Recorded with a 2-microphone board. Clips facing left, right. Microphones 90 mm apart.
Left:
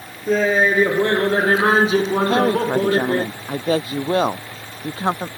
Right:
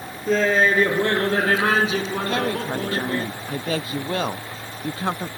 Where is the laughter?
5° left (ahead or behind); by 3.3 s 45° left (ahead or behind).